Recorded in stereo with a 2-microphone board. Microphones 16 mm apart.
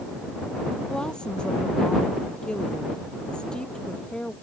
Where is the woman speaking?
75° left (ahead or behind).